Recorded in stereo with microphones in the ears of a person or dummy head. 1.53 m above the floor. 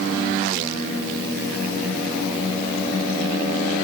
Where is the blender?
I don't hear a blender.